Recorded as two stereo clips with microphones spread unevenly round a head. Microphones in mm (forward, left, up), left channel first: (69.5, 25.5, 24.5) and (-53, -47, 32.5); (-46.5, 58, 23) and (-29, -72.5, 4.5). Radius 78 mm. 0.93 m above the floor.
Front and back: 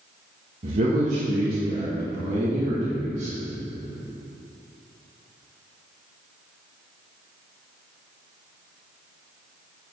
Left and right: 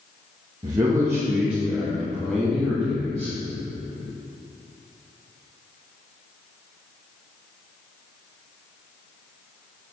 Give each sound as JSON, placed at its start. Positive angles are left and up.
{"t": 0.6, "sound": "a man speaking", "azimuth_deg": -125, "distance_m": 1.4}